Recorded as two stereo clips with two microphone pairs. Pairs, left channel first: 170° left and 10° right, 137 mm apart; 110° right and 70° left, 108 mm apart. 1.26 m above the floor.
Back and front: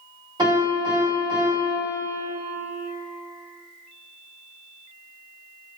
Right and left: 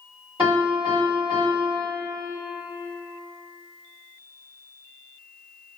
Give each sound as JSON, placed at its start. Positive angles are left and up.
{"t": 0.4, "sound": "a piano", "azimuth_deg": 45, "distance_m": 1.6}